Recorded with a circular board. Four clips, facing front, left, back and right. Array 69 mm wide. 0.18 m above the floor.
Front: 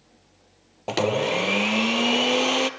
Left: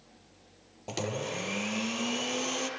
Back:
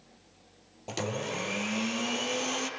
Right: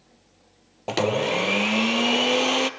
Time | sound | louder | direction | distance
0.9 | a blender | right 12 dB, front 11 dB | 45° right | 1.1 m